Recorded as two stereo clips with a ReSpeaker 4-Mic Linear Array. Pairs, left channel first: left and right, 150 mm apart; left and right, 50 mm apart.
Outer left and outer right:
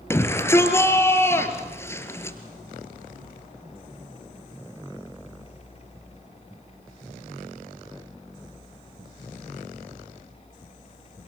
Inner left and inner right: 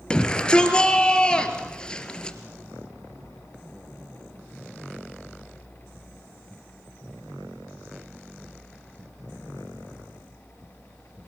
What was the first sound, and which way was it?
A shout, 15° left (ahead or behind).